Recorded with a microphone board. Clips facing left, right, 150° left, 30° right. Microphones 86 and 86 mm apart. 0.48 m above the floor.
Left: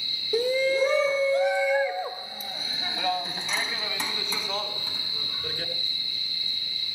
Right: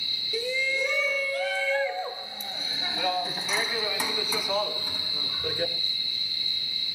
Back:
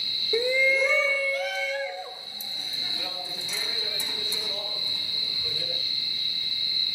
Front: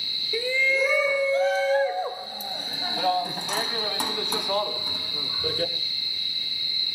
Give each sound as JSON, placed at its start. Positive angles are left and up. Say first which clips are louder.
{"t": 0.3, "sound": "a shout", "louder": "left 7 dB, back 1 dB", "azimuth_deg": 95, "distance_m": 1.1}